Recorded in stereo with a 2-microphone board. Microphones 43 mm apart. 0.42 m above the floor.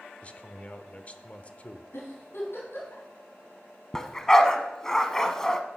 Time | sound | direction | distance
0.2 | a man speaking | 30° left (ahead or behind) | 0.9 m
1.9 | a giggle | 65° left (ahead or behind) | 4 m
3.9 | a dog barking | 15° left (ahead or behind) | 0.9 m